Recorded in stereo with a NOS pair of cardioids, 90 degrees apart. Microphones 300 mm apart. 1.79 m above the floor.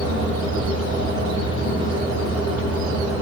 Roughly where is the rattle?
I don't hear a rattle.